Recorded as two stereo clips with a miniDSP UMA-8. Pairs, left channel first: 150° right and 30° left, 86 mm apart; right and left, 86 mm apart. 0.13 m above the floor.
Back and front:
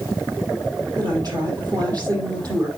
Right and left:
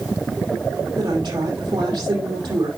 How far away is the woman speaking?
About 6 m.